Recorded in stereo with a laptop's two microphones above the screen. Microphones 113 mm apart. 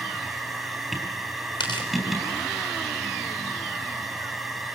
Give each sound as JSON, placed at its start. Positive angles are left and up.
{"t": 0.0, "sound": "a machine running", "side_deg": 0, "distance_m": 3.0}
{"t": 1.6, "sound": "tearing paper", "side_deg": 45, "distance_m": 4.0}